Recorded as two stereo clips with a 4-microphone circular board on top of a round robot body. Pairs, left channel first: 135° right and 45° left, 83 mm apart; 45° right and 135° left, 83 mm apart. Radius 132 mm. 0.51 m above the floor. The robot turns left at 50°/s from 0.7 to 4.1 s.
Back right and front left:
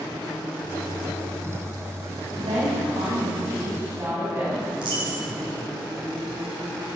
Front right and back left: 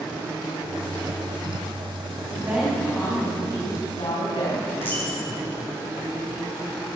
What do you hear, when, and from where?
2.4 s a woman speaking: 65° left, 5.5 m; by 4.6 s 20° right, 5.5 m
4.7 s a dropped coin: 20° left, 9.5 m